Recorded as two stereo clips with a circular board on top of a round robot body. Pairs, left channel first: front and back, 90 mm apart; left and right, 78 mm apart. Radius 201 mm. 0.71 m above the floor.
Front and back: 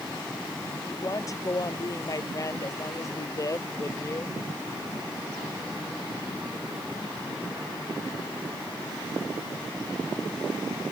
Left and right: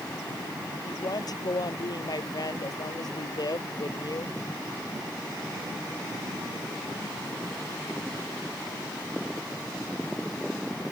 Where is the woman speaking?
55° left.